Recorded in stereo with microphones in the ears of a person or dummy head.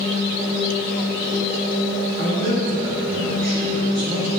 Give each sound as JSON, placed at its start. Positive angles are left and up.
{"t": 2.2, "sound": "a man speaking", "side_deg": -65, "distance_m": 2.5}